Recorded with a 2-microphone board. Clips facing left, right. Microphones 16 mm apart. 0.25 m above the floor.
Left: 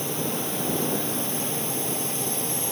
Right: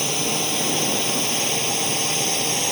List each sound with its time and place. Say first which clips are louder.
0.0 s a drone: right 6 dB; 50° right (ahead or behind); by 2.7 s 45° right (ahead or behind)